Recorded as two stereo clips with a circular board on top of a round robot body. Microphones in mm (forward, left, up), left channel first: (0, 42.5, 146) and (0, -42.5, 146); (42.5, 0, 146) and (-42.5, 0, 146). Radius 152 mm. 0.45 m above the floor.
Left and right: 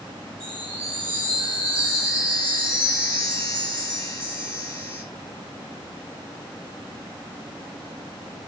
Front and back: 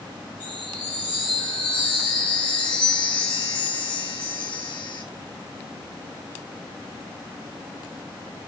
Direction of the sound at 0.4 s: 25° left.